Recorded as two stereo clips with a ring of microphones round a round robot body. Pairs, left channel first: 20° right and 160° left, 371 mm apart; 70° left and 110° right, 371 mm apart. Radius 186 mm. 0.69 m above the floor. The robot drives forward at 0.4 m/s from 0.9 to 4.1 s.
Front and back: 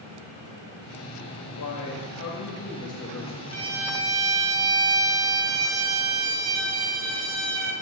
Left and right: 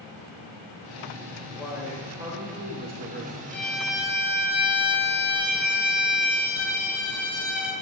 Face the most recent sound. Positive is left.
turn(degrees=160)